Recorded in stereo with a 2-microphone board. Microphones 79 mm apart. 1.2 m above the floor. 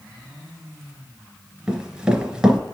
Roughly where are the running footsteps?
Centre.